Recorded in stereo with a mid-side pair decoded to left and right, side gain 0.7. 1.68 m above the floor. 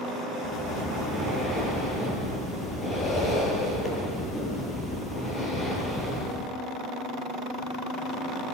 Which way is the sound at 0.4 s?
20° left.